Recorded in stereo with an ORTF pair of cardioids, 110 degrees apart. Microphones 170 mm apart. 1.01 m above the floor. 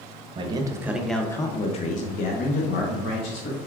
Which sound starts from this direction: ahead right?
A man speaking, at 0.3 s.